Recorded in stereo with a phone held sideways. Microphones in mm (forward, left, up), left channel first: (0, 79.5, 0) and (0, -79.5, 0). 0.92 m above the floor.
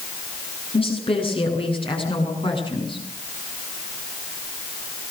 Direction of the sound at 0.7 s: 35° left (ahead or behind).